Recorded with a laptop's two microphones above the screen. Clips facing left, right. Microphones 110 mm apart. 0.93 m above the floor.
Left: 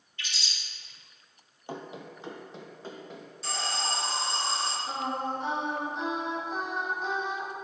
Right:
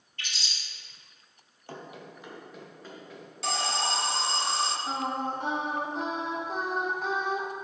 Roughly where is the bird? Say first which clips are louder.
Even; right.